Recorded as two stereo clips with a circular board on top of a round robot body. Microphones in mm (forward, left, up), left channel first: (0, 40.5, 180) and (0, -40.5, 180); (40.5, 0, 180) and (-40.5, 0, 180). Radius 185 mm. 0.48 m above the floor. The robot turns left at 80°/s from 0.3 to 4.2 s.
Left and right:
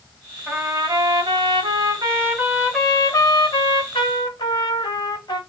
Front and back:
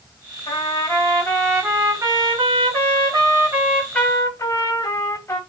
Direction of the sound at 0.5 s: 5° right.